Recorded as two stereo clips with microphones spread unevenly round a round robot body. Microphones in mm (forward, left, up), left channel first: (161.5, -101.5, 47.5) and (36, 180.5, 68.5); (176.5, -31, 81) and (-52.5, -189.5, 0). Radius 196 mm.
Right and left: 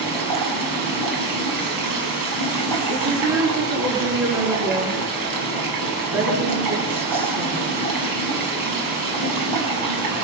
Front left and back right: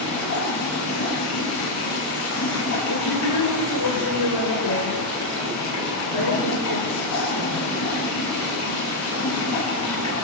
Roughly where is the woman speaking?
Left.